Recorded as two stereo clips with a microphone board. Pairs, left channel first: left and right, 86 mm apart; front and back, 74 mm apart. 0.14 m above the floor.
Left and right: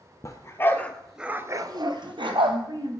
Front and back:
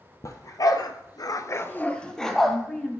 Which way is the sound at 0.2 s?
40° left.